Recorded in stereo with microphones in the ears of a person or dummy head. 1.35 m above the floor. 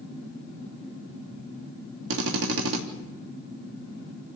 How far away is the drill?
About 3 m.